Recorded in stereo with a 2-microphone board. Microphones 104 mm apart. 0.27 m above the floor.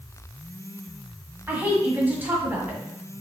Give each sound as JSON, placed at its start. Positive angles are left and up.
{"t": 1.5, "sound": "a woman speaking", "side_deg": -20, "distance_m": 1.5}